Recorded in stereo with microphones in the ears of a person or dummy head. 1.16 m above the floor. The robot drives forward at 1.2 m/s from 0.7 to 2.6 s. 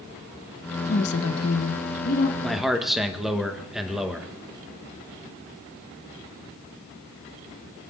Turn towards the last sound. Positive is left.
turn(degrees=0)  # may be behind; listen again after turning